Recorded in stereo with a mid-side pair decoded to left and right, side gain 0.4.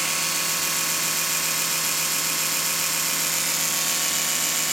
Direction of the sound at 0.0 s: 15° right.